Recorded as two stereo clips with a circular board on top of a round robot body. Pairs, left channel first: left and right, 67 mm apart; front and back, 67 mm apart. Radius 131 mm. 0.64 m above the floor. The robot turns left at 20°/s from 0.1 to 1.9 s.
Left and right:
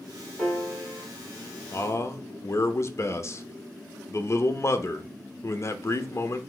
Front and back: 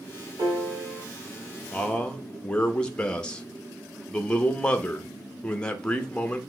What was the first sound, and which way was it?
A piano, 175° right.